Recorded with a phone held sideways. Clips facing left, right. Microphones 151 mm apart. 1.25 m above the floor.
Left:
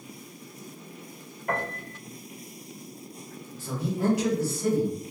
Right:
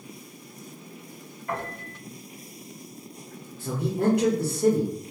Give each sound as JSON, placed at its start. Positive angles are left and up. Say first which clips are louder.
{"t": 1.5, "sound": "a piano", "louder": "left 2 dB", "side_deg": 55, "distance_m": 1.4}
{"t": 3.6, "sound": "a man speaking", "louder": "right 3 dB", "side_deg": -55, "distance_m": 1.3}